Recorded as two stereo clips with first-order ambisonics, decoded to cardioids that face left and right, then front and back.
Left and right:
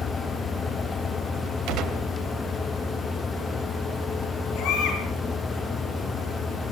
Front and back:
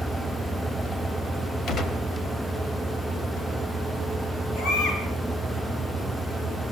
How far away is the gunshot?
About 2.5 m.